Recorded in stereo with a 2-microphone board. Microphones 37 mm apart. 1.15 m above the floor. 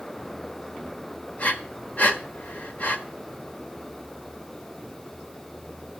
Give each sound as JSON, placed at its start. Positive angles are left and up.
{"t": 1.4, "sound": "breathing", "side_deg": 50, "distance_m": 1.3}